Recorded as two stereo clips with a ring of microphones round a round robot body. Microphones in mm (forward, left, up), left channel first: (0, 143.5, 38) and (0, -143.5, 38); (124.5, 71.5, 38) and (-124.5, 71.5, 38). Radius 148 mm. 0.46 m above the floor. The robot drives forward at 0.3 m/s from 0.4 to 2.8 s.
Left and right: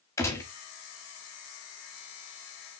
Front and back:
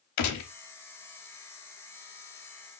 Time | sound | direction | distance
0.2 | a gunshot | 10° left | 0.8 m